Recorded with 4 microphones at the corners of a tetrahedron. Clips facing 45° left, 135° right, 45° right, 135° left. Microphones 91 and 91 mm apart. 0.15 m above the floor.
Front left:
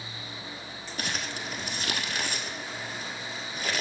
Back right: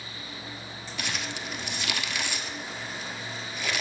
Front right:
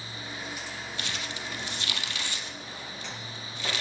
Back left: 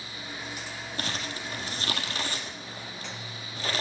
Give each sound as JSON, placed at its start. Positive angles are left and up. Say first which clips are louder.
{"t": 1.0, "sound": "crumpling", "louder": "even, back left 4 dB", "azimuth_deg": 90, "distance_m": 0.9}